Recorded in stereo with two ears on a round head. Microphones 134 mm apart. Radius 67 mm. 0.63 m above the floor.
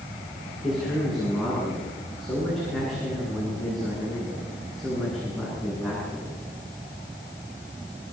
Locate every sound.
0.6 s a man speaking: centre (ahead or behind), 9.5 m